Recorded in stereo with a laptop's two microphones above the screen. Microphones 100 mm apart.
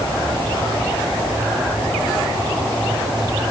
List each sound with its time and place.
Only background noise.